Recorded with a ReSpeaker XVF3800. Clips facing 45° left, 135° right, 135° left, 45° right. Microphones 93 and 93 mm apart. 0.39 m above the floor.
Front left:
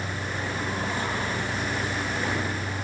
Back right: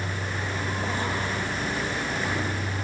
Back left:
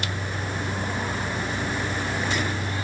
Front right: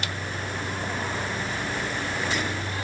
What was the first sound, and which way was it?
Only background noise.